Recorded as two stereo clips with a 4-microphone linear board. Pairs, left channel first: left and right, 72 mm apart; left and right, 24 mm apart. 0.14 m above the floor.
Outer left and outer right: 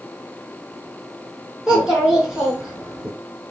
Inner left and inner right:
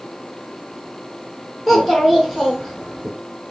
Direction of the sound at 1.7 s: 10° right (ahead or behind).